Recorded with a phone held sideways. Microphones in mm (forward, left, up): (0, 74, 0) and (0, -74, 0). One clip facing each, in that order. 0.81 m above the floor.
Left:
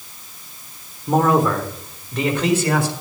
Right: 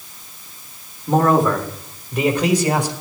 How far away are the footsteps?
I don't hear footsteps.